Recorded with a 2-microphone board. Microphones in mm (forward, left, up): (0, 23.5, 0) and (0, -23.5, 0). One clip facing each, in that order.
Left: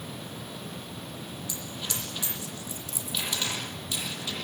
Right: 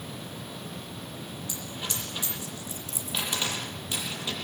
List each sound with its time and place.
1.5 s a dropped coin: 30° right (ahead or behind), 8 m